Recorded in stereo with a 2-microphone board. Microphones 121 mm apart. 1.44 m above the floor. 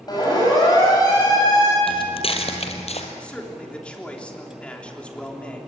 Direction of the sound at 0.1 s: 30° left (ahead or behind).